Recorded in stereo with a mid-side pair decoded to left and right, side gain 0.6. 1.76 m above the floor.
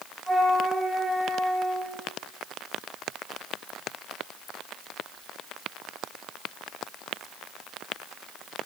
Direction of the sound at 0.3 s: 10° right.